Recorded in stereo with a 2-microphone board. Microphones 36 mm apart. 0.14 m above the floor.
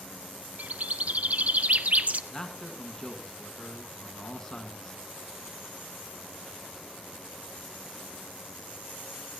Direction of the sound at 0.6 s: 45° right (ahead or behind).